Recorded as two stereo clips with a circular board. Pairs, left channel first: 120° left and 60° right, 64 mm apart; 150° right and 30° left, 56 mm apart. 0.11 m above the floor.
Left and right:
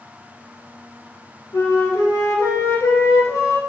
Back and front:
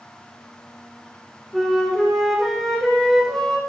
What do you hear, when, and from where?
1.5 s a flute: 130° left, 2.0 m